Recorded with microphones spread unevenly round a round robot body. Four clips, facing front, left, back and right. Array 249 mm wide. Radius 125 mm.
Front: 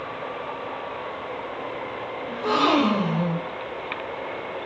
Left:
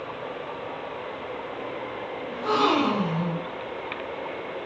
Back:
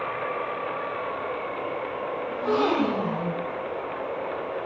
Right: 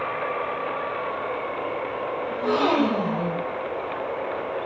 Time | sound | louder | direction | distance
2.3 | a gasp | even, front 3 dB | 25° right | 2 m